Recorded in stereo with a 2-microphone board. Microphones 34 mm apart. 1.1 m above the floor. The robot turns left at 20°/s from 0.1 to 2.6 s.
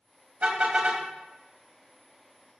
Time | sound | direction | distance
0.4 | a car horn | 45° right (ahead or behind) | 3.5 m